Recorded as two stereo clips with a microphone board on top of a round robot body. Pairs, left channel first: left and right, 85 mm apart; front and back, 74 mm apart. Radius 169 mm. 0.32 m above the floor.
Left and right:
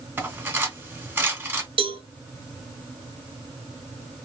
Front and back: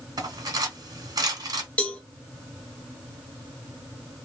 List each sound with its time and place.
0.2 s cutlery clinking: 155° right, 1.5 m
1.8 s a cowbell: 75° right, 0.8 m